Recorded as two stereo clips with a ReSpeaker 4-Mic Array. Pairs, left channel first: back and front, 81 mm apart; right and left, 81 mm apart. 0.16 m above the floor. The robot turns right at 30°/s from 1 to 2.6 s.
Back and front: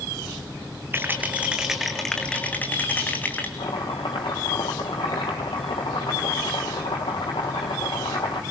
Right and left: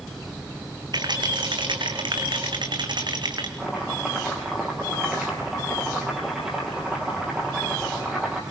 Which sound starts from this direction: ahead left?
A rattle, at 0.9 s.